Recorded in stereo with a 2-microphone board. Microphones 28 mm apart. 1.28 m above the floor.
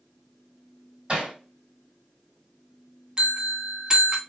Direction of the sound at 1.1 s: 35° right (ahead or behind).